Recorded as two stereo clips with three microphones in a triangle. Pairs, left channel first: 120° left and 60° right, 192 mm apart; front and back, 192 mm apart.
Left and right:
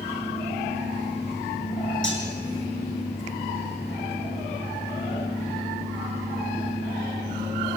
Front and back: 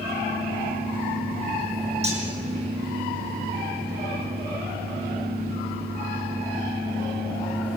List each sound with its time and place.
2.0 s cutlery clinking: 125° left, 6 m